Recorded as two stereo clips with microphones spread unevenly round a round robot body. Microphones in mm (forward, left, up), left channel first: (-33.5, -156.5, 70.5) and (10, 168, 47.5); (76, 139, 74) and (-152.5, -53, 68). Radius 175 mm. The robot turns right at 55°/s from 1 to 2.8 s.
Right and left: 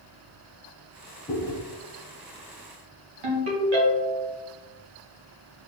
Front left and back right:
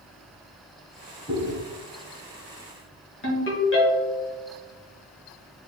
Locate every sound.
1.3 s chewing: 30° right, 1.1 m; by 1.6 s 10° right, 1.1 m
3.2 s a ringtone: 90° left, 1.6 m